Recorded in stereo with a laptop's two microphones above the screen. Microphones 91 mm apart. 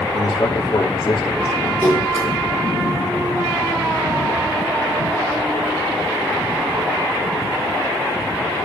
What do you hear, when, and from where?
0.1 s a man speaking: 65° left (ahead or behind), 2.5 m
1.8 s a splash: 10° right (ahead or behind), 8.5 m